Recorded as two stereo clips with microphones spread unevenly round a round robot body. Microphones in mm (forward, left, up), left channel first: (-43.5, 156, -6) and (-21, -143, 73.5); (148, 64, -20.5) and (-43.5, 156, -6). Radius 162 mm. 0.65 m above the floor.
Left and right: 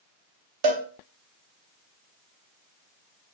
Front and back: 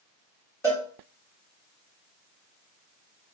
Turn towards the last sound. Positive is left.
turn(degrees=-105)